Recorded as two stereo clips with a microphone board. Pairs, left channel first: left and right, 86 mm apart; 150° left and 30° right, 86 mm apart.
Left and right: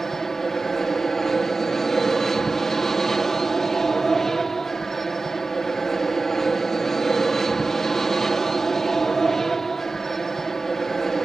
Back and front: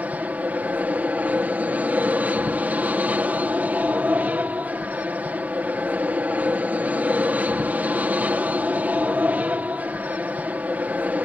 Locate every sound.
0.0 s an aircraft: 10° left